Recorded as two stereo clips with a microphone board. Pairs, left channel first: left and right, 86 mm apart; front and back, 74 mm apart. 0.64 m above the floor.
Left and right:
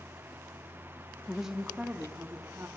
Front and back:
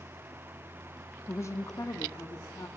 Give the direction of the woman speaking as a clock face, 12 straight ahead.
12 o'clock.